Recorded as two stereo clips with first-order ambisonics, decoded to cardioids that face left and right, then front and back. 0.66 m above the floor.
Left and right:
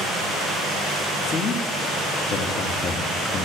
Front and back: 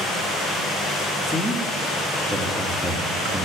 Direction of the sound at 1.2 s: 90° left.